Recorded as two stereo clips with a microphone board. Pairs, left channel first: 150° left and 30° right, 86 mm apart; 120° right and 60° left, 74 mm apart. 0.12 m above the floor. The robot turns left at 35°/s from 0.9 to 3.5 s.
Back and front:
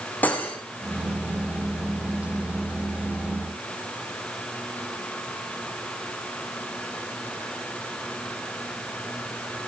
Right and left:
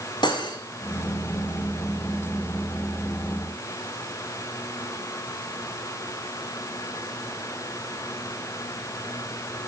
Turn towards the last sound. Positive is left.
turn(degrees=130)